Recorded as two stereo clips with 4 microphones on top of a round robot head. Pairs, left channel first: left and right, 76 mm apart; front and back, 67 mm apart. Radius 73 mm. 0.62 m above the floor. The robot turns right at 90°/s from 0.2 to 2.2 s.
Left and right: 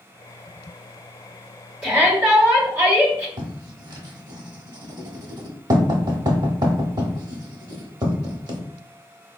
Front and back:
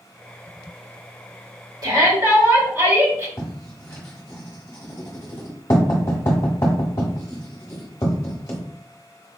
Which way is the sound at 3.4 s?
60° right.